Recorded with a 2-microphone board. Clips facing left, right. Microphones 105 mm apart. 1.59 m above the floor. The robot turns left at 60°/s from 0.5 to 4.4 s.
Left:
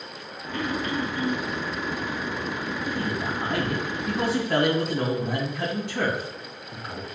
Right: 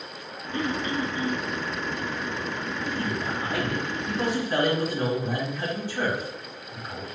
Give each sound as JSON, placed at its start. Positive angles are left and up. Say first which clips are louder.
{"t": 0.5, "sound": "throat clearing", "louder": "even", "azimuth_deg": -140, "distance_m": 0.9}
{"t": 2.9, "sound": "a man speaking", "louder": "left 1 dB", "azimuth_deg": 160, "distance_m": 3.0}